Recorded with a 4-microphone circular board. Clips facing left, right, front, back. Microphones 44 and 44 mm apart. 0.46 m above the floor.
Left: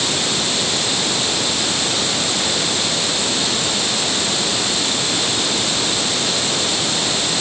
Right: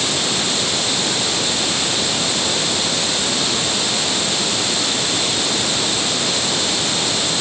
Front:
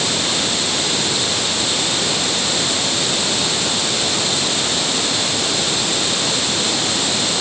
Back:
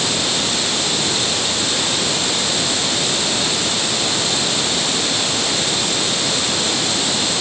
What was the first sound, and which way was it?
Only background noise.